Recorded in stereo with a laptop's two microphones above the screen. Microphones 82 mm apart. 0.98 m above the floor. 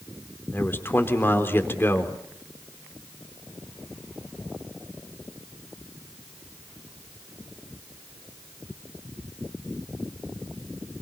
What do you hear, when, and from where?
0.5 s a man speaking: 25° left (ahead or behind), 3.5 m